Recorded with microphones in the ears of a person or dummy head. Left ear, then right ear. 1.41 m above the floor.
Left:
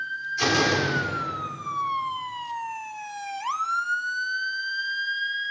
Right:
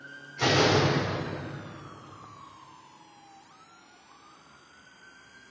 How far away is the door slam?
About 4 m.